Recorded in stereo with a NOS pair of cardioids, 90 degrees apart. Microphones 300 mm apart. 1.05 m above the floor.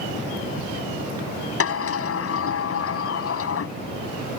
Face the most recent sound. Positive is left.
turn(degrees=50)